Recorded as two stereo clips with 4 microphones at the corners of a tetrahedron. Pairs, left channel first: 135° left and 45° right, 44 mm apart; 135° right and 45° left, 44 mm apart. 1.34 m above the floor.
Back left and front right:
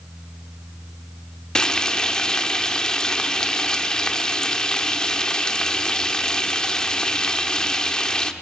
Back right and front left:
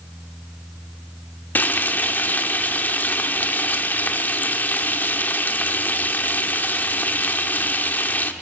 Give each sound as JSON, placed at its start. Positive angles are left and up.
{"t": 1.6, "sound": "frying", "azimuth_deg": -160, "distance_m": 1.2}